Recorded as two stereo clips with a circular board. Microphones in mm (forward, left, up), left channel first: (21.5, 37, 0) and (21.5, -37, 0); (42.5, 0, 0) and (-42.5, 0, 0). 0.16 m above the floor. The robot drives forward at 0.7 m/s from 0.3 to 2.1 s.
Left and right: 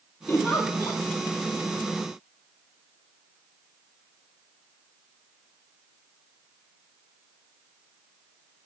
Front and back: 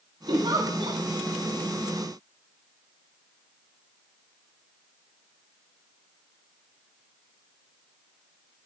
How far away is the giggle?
About 9 m.